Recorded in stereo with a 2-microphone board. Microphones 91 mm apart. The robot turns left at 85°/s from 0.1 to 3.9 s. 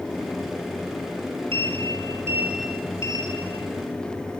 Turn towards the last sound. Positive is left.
turn(degrees=70)